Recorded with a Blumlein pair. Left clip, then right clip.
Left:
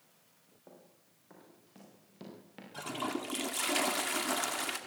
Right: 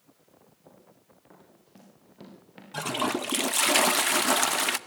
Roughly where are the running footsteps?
Ahead right.